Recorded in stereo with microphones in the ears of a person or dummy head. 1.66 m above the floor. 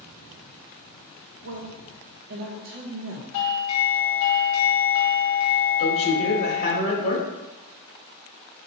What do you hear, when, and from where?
1.4 s a woman speaking: 45° right (ahead or behind), 0.6 m
3.3 s a doorbell: 85° left, 0.6 m
5.8 s a man speaking: 60° left (ahead or behind), 1.0 m